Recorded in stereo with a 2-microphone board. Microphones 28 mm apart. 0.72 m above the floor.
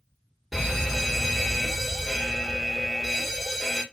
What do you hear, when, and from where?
0.5 s a fire alarm: 10° right (ahead or behind), 1.4 m